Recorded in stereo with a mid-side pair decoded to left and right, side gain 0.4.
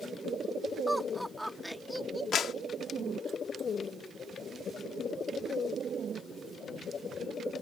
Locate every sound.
0.9 s laughter: straight ahead
2.3 s a clap: 65° left